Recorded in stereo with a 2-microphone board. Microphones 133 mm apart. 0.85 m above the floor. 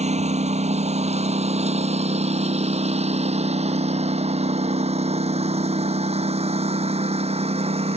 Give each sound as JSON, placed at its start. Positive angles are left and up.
{"t": 0.0, "sound": "a lawn mower", "side_deg": -65}